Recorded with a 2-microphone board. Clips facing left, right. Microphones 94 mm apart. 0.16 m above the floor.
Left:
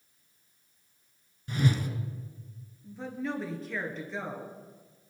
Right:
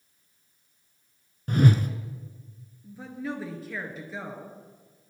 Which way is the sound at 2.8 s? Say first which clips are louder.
Even; 5° right (ahead or behind).